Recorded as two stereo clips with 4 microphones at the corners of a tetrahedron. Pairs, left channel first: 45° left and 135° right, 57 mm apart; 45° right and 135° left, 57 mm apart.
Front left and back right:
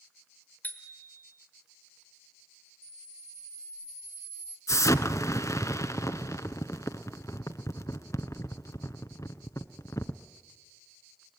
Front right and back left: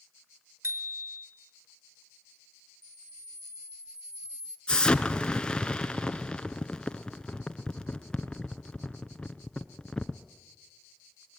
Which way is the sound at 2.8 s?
145° right.